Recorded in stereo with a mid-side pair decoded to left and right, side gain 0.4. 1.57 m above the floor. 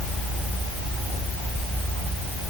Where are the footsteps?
I don't hear footsteps.